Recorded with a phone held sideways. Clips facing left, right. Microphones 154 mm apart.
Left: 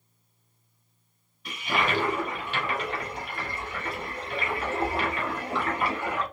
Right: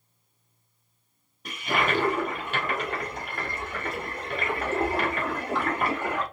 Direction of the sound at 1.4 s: 45° right (ahead or behind).